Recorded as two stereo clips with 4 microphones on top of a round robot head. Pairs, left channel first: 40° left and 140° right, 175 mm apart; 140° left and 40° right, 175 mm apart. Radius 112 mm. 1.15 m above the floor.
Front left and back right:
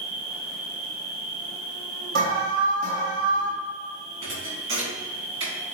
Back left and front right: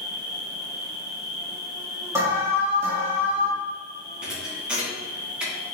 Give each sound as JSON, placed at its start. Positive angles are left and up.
{"t": 0.0, "sound": "an insect", "azimuth_deg": -120, "distance_m": 1.2}
{"t": 2.1, "sound": "an alarm", "azimuth_deg": -115, "distance_m": 3.0}
{"t": 4.2, "sound": "a thud", "azimuth_deg": -125, "distance_m": 2.5}